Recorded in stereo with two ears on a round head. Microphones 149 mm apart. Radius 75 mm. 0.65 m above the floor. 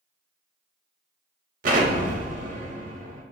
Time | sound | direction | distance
1.6 | an explosion | 55° right (ahead or behind) | 0.6 m